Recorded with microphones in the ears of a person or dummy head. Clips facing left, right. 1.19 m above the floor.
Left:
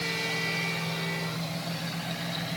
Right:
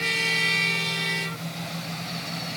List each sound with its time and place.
Only background noise.